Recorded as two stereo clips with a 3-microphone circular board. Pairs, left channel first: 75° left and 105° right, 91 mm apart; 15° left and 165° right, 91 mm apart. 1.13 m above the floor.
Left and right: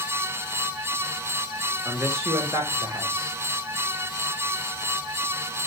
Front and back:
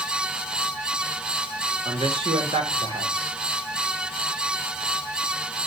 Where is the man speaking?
160° right, 2 m.